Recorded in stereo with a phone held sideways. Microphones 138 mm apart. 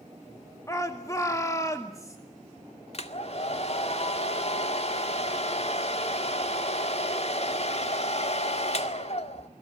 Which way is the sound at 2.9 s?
50° left (ahead or behind).